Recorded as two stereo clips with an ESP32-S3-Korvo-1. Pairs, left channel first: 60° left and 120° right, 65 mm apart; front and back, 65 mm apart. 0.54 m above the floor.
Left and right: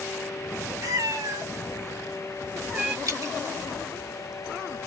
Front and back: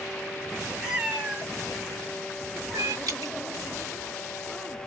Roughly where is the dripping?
Behind right.